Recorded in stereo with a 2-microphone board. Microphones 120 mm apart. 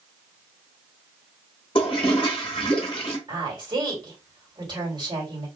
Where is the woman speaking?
40° right (ahead or behind), 2 m.